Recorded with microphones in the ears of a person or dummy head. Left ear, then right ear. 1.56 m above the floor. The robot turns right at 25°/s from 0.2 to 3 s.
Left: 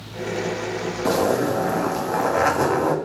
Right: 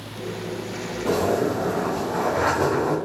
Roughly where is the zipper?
Left.